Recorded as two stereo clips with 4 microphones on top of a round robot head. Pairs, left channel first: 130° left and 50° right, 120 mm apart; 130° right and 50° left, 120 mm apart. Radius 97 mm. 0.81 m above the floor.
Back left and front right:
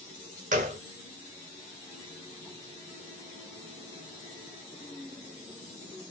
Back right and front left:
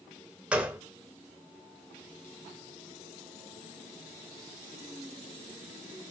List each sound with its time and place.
0.5 s a gunshot: 35° right, 0.6 m